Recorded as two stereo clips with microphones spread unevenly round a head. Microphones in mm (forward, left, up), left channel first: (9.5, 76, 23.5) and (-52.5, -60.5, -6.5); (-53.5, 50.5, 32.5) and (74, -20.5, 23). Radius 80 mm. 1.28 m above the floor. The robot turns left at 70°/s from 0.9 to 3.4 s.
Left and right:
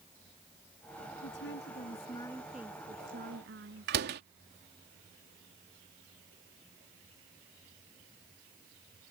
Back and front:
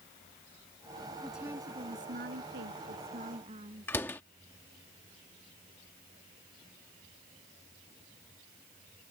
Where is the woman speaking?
65° left; by 3.9 s 85° right.